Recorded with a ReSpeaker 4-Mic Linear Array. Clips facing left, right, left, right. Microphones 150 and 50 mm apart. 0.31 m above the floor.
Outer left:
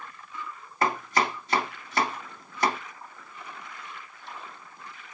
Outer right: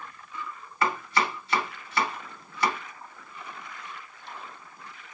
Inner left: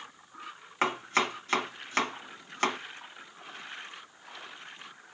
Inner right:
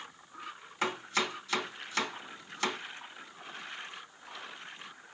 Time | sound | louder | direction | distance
0.8 | chopping | outer left 1 dB, inner left 4 dB | 40° left (ahead or behind) | 1.5 m